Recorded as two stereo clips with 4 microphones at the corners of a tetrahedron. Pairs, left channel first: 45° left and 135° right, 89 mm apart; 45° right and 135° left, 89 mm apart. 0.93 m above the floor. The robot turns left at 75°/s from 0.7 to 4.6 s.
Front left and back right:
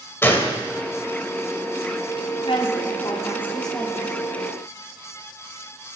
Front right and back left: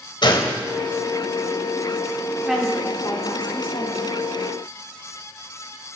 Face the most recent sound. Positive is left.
turn(degrees=-110)